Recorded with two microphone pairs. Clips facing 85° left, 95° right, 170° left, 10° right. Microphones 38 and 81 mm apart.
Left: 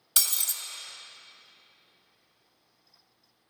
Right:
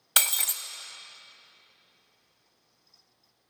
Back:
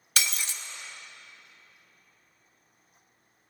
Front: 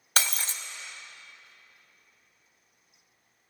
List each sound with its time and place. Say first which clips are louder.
0.2 s breaking glass: right 5 dB, front 2 dB; 60° right, 0.6 m